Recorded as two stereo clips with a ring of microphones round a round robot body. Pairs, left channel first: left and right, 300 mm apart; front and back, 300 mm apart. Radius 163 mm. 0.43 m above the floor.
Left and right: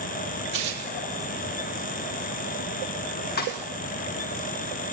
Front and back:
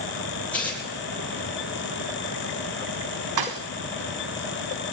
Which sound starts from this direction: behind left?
A thud, at 3.4 s.